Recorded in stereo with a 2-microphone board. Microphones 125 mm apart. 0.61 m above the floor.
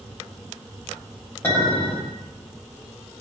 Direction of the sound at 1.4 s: 20° left (ahead or behind).